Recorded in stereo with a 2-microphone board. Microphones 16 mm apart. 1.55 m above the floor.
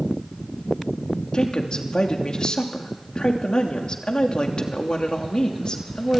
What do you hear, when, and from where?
1.3 s a woman speaking: 55° left (ahead or behind), 2.5 m